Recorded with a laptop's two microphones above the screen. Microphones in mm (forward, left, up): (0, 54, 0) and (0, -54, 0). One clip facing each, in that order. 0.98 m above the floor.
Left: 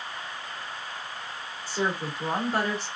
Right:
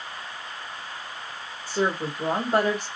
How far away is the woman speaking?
About 2.5 m.